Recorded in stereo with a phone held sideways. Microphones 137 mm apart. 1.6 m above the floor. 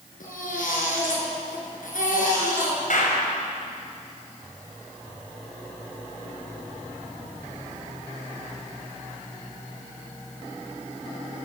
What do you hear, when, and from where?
0.2 s a baby crying: 80° left, 7.5 m
2.9 s a clap: 75° left (ahead or behind), 6.5 m